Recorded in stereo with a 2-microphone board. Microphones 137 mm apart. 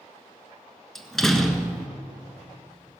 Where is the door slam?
5° left (ahead or behind), 1.3 m.